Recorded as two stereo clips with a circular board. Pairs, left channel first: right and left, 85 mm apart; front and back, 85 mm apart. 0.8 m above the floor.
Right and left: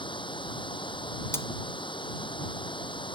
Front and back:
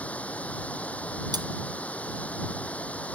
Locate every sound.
0.0 s running water: 75° right
1.3 s cutlery clinking: 145° right